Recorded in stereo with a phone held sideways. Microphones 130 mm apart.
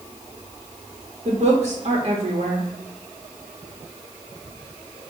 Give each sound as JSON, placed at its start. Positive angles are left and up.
{"t": 1.2, "sound": "a woman speaking", "side_deg": -50, "distance_m": 0.9}